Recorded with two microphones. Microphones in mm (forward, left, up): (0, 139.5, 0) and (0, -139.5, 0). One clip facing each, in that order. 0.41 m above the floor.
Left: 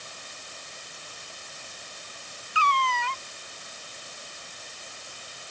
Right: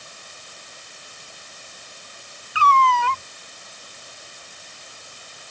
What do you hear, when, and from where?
2.5 s a cat meowing: 80° right